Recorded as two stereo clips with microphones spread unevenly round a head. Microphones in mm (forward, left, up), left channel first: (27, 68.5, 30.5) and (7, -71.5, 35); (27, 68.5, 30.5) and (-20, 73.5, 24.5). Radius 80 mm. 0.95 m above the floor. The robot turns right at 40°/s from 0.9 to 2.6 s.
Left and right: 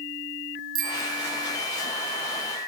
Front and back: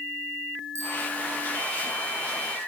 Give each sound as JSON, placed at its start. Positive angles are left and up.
{"t": 0.8, "sound": "a bicycle bell", "azimuth_deg": -130, "distance_m": 2.5}